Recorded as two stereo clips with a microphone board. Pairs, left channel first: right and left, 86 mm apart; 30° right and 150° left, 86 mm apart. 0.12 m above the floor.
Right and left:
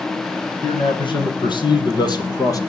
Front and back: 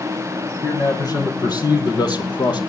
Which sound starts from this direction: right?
A man speaking, at 0.6 s.